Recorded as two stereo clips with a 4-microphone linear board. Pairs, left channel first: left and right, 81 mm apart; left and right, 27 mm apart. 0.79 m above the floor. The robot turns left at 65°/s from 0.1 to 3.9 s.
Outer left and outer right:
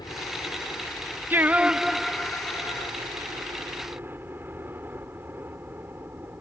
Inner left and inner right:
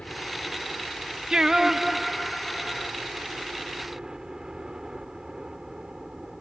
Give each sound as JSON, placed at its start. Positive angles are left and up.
{"t": 0.0, "sound": "a helicopter", "azimuth_deg": 95}
{"t": 1.3, "sound": "singing", "azimuth_deg": -140}